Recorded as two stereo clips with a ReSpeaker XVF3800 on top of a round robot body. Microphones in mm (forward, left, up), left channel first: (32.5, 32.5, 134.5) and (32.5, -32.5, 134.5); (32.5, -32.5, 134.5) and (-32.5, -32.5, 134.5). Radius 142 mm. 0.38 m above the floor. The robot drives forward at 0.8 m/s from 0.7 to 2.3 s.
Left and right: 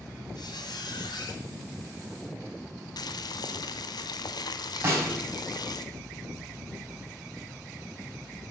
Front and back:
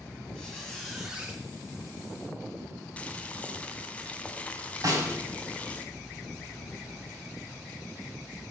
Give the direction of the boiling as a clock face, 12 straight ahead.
10 o'clock.